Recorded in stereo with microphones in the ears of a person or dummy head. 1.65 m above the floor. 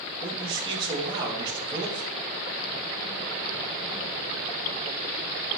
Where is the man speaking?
30° right (ahead or behind), 3 m.